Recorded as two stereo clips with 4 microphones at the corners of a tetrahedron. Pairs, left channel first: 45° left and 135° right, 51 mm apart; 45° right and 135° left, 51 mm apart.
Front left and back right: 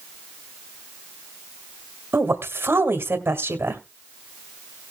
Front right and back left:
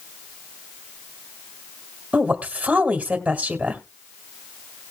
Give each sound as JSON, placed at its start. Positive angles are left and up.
{"t": 2.1, "sound": "a woman speaking", "azimuth_deg": -160, "distance_m": 2.0}